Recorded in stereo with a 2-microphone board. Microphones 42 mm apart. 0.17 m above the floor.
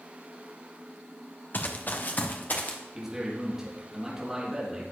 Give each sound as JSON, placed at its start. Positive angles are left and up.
{"t": 1.5, "sound": "running footsteps", "side_deg": 45, "distance_m": 1.3}
{"t": 3.0, "sound": "a man speaking", "side_deg": -10, "distance_m": 4.5}